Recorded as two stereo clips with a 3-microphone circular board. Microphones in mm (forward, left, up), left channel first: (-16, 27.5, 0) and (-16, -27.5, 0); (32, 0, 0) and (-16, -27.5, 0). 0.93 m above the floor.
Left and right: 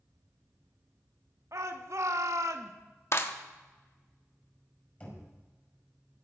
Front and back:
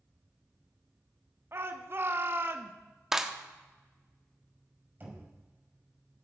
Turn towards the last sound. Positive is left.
turn(degrees=155)